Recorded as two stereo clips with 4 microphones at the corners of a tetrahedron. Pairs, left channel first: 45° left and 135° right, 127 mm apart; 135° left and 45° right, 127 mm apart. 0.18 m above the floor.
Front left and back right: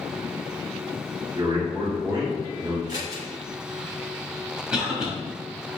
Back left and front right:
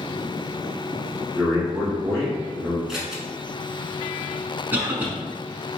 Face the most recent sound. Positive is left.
turn(degrees=-65)